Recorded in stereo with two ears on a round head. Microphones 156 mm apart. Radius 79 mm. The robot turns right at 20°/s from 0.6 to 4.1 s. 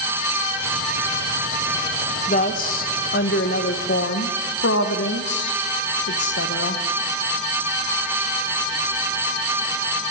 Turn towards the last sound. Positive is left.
turn(degrees=85)